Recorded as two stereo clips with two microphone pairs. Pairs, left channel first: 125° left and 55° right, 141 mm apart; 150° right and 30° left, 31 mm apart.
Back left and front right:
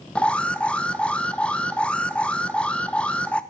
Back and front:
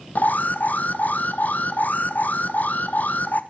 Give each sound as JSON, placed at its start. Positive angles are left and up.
{"t": 0.1, "sound": "an alarm", "azimuth_deg": -150, "distance_m": 1.0}